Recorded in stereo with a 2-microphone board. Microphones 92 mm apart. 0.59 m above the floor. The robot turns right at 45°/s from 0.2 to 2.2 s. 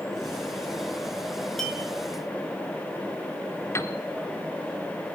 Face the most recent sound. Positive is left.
turn(degrees=30)  # may be behind; listen again after turning